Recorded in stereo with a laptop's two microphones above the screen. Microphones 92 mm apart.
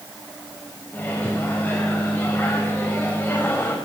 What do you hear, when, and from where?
0.9 s a microwave: 20° left (ahead or behind), 4.5 m